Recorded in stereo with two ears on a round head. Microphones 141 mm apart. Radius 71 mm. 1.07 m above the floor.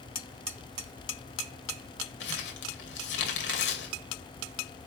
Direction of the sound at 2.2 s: 80° left.